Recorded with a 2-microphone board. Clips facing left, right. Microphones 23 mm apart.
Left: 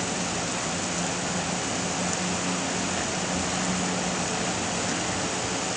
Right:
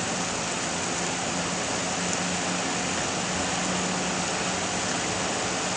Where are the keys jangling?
I don't hear keys jangling.